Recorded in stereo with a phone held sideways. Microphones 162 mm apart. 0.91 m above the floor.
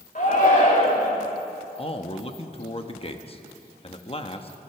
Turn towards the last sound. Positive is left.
turn(degrees=35)  # may be behind; listen again after turning